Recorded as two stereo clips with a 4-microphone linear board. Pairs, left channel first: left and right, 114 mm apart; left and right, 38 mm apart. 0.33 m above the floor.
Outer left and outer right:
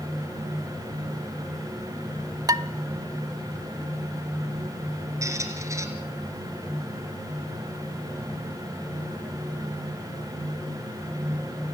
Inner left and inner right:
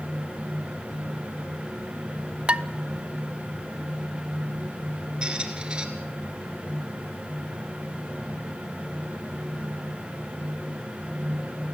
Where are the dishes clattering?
35° right (ahead or behind), 0.6 m.